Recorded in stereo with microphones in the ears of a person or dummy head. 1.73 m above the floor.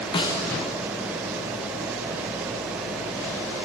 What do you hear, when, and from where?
0.1 s a snare drum: 25° left (ahead or behind), 1.4 m